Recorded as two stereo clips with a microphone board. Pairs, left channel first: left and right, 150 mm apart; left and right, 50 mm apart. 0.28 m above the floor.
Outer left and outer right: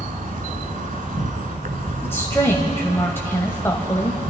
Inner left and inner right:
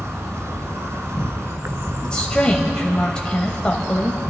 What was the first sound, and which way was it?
An insect, 65° right (ahead or behind).